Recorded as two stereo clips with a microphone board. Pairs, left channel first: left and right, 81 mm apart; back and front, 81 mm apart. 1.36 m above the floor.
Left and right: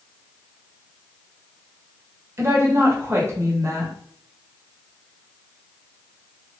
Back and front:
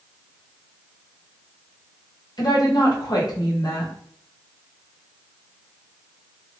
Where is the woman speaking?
145° right, 1.2 m.